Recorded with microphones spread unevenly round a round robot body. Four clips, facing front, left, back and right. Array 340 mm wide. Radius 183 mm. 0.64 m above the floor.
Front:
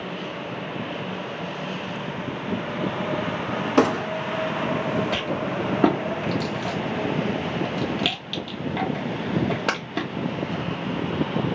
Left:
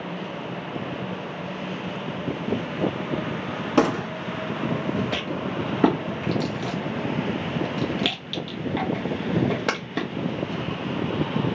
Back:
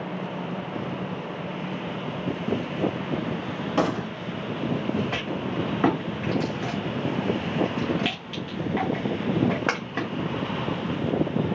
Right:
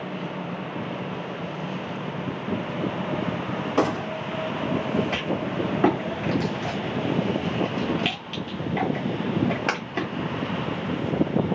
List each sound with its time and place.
3.8 s a gunshot: 60° left, 1.4 m
5.1 s a rattle: 60° left, 1.5 m